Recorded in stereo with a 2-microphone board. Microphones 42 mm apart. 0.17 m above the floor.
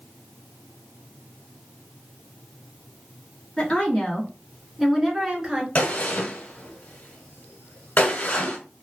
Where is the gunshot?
40° left (ahead or behind), 1.0 m.